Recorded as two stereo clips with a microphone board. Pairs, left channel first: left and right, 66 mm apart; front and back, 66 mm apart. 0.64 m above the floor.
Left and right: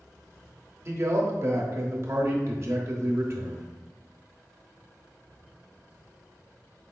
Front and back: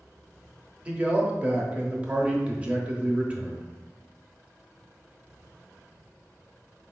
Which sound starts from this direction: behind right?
A man speaking, at 0.8 s.